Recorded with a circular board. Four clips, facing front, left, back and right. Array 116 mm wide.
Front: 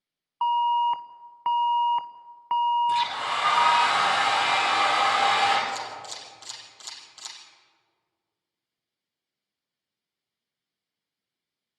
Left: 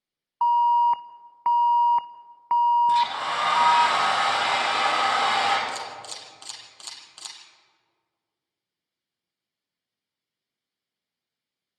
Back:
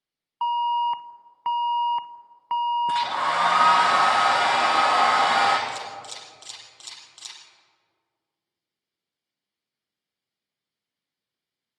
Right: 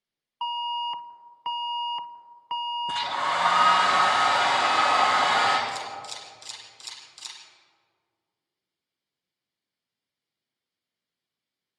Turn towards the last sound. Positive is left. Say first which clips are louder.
# even, front 1 dB
turn(degrees=95)